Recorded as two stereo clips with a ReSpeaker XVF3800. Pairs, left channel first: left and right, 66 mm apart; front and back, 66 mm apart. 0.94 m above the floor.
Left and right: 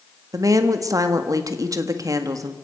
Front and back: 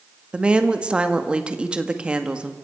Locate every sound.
0.3 s a woman speaking: 110° right, 1.8 m